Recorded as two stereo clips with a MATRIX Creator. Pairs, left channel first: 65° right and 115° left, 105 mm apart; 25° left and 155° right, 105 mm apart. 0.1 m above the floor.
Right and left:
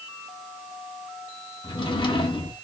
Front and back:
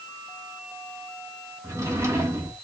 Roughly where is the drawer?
Right.